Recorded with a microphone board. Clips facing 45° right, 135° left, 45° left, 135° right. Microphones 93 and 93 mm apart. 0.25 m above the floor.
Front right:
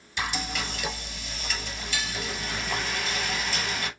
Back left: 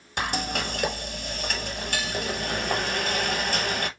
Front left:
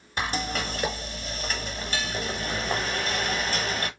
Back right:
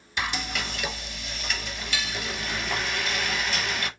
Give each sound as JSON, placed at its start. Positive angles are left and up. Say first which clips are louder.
{"t": 0.2, "sound": "frying", "louder": "back left 3 dB, front left 2 dB", "azimuth_deg": 95, "distance_m": 0.7}